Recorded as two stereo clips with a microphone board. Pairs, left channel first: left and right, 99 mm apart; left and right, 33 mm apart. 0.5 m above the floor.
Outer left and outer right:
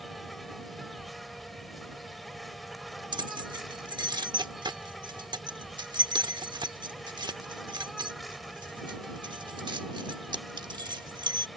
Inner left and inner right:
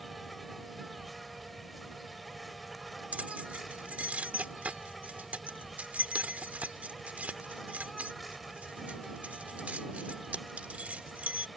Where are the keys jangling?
50° right (ahead or behind).